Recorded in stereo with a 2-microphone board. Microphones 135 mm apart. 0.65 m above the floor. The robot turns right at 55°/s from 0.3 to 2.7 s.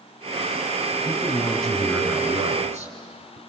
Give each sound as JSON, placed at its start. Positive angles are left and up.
{"t": 1.1, "sound": "a man speaking", "azimuth_deg": 145, "distance_m": 6.0}